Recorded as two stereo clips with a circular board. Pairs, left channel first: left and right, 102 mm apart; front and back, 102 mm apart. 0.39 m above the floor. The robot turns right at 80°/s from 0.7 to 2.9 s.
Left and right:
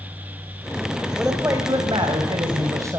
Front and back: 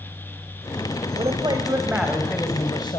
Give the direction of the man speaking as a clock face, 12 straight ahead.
6 o'clock.